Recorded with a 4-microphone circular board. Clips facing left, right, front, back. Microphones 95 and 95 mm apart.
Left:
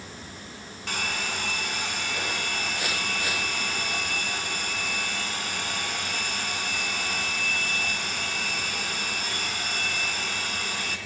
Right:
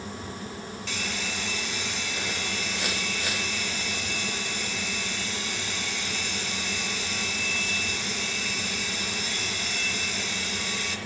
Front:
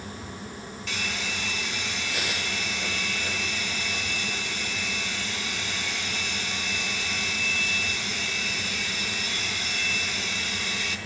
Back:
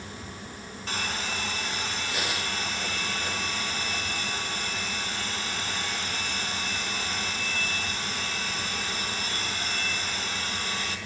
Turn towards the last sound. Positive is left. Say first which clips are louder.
# left 5 dB, back 2 dB
turn(degrees=130)